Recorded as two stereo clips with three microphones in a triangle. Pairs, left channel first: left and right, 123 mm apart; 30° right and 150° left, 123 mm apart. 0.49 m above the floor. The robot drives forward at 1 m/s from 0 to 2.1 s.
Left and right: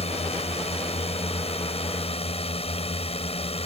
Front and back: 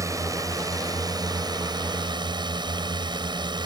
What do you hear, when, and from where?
0.0 s a drone: 90° left; by 3.7 s 105° left